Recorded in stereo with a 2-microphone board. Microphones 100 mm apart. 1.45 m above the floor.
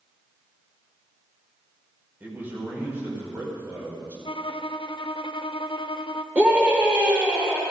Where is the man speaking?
20° right (ahead or behind), 5 m.